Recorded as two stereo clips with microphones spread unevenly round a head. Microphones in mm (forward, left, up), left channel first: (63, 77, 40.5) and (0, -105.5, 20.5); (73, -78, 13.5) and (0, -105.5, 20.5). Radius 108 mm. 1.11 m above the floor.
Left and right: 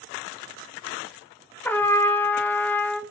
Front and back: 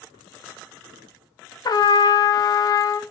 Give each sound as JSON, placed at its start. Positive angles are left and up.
{"t": 1.6, "sound": "a trumpet", "azimuth_deg": 0, "distance_m": 0.7}